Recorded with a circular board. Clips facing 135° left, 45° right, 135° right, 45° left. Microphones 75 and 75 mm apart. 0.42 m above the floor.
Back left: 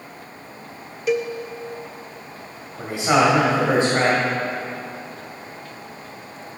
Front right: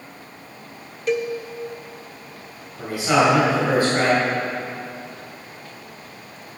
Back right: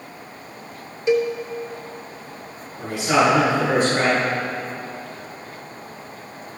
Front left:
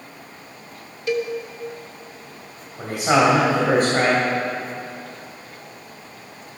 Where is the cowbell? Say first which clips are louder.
Back left 1 dB, back right 5 dB; 145° right, 0.6 m.